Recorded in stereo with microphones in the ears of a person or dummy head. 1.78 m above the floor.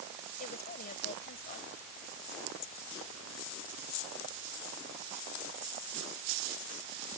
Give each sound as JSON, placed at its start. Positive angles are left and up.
{"t": 0.4, "sound": "a woman speaking", "side_deg": 40}